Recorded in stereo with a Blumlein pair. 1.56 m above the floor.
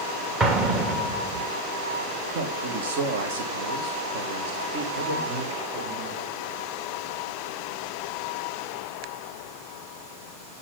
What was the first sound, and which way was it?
An explosion, 25° right.